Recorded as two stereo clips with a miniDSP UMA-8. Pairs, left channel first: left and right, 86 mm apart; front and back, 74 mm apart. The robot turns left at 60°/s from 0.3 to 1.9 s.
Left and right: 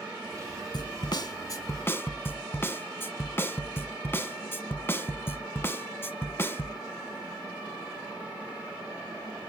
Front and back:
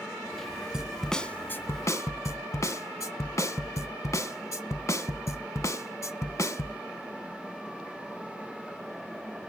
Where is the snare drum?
100° left, 0.6 m; by 6.9 s 35° left, 0.6 m.